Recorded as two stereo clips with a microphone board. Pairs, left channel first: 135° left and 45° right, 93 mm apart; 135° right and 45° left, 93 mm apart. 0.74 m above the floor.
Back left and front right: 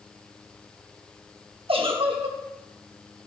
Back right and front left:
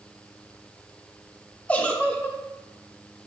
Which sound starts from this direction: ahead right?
A giggle, at 1.7 s.